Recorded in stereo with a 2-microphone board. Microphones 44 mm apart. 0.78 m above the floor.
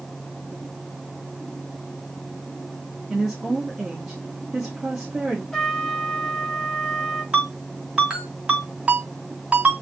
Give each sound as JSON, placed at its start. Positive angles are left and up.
{"t": 3.1, "sound": "a woman speaking", "side_deg": -10, "distance_m": 1.0}
{"t": 5.5, "sound": "a trumpet", "side_deg": 10, "distance_m": 0.9}
{"t": 7.3, "sound": "a ringtone", "side_deg": -25, "distance_m": 2.0}